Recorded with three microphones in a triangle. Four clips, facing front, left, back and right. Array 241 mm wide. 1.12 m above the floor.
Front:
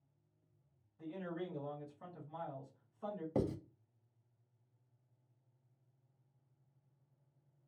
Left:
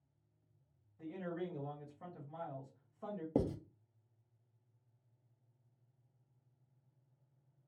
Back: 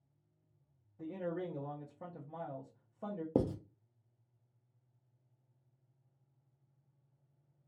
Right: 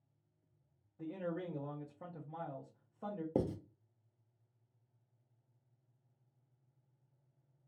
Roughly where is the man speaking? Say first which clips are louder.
Right 2 dB, back 4 dB; behind right.